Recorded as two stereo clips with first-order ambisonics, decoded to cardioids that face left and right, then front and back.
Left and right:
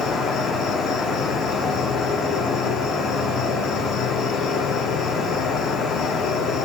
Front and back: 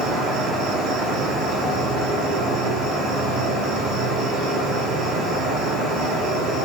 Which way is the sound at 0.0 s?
140° left.